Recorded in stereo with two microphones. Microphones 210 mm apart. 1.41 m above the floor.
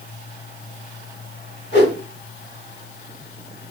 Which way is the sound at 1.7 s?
60° left (ahead or behind).